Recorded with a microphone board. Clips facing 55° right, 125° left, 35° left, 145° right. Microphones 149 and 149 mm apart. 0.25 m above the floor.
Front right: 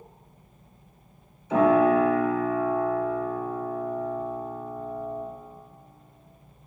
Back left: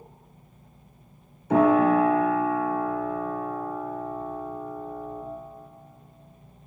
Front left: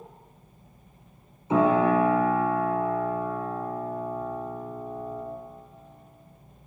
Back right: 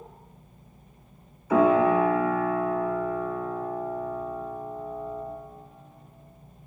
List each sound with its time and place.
1.5 s a piano: 100° left, 1.6 m